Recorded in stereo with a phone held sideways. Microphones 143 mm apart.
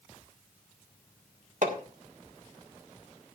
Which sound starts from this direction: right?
Hammering, at 1.6 s.